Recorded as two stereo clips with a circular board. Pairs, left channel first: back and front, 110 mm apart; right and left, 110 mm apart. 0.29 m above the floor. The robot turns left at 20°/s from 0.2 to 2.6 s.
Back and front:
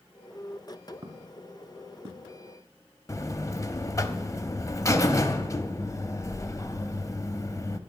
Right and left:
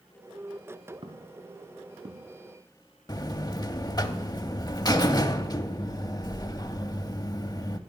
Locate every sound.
1.0 s footsteps: 50° left, 2 m; by 2.3 s 55° left, 2 m
3.1 s a buzzer: 130° right, 0.7 m